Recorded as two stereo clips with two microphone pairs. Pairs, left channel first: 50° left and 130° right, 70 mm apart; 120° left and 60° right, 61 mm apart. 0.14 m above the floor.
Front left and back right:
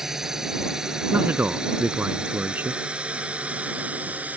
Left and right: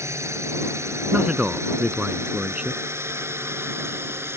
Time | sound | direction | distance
0.0 | a drone | 50° right | ?
1.1 | a man speaking | 110° right | ?